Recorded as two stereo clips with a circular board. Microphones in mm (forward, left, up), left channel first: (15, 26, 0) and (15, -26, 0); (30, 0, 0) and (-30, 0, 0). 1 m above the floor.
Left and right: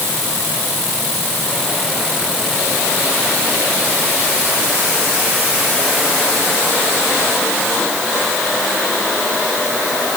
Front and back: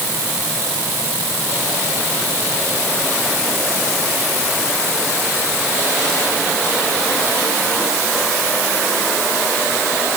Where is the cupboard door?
No cupboard door in this recording.